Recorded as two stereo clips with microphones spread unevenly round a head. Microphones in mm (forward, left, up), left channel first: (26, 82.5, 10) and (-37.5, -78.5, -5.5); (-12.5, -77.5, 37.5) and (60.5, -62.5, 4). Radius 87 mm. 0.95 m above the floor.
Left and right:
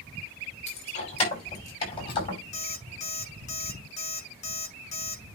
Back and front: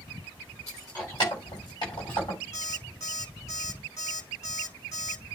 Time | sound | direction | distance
0.7 | keys jangling | 120° left | 5 m
2.5 | an alarm clock | 120° left | 5 m